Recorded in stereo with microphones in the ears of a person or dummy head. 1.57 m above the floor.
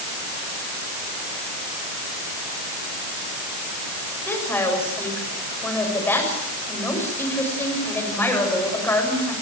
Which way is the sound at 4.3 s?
10° left (ahead or behind).